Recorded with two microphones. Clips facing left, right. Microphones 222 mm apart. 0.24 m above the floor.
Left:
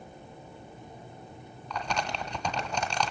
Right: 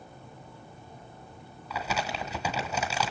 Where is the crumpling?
5° right (ahead or behind), 1.5 m.